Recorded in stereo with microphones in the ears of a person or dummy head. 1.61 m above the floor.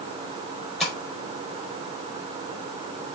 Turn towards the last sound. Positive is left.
turn(degrees=0)  # may be behind; listen again after turning